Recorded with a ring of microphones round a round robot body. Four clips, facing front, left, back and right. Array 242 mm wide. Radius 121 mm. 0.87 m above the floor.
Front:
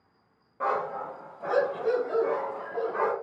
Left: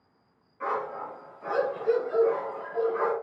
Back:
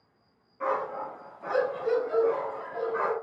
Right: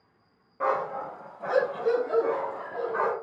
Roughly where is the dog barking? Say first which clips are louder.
Right 4 dB, front 1 dB; ahead right.